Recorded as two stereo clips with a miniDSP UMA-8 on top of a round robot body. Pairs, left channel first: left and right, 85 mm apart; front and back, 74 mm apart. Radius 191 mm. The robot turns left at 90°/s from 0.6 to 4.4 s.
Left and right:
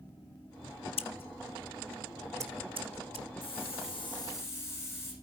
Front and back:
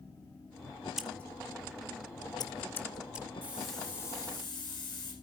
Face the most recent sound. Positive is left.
turn(degrees=25)